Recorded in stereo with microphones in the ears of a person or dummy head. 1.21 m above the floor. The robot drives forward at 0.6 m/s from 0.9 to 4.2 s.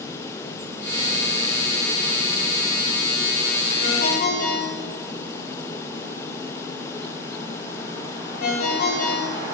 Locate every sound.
3.8 s a ringtone: 55° left (ahead or behind), 1.5 m; by 9.6 s 50° left (ahead or behind), 1.6 m